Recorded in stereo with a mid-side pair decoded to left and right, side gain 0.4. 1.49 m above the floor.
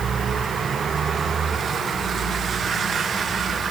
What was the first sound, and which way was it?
Only background noise.